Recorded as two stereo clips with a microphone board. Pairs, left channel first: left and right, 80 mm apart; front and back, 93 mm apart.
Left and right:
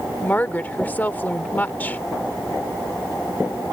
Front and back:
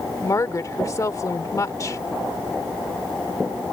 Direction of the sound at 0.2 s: 30° left.